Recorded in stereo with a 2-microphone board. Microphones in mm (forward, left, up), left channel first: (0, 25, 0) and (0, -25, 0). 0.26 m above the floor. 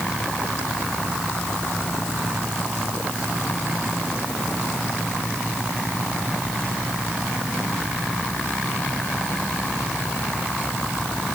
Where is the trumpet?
I don't hear a trumpet.